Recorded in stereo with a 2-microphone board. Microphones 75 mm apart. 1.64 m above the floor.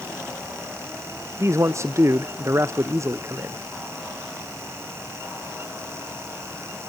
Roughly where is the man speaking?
Right.